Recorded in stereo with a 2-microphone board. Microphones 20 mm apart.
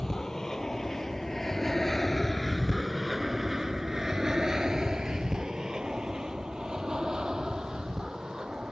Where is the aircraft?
30° left (ahead or behind); by 8.7 s 45° right (ahead or behind).